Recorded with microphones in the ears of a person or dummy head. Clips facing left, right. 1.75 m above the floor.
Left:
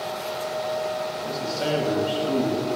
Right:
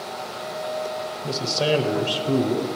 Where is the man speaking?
30° right (ahead or behind), 0.7 m.